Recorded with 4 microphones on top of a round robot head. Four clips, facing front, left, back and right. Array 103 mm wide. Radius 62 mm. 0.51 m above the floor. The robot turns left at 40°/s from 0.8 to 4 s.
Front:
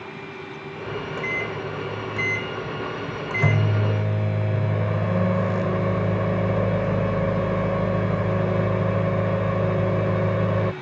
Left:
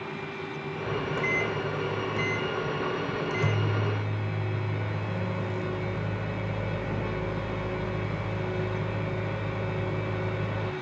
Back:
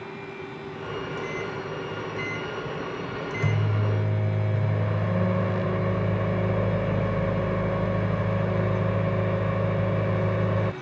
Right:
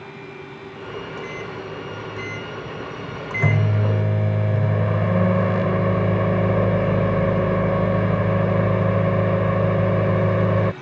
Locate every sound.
0.9 s a microwave: 55° left; by 10.7 s 70° right